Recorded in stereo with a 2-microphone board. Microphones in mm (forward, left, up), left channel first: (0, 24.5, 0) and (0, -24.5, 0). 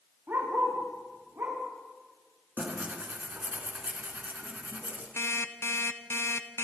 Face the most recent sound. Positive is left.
turn(degrees=65)  # may be behind; listen again after turning